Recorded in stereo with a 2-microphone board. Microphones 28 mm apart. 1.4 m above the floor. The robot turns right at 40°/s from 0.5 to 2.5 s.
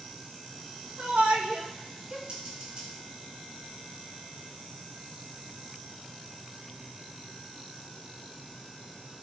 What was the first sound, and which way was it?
A shout, 65° right (ahead or behind).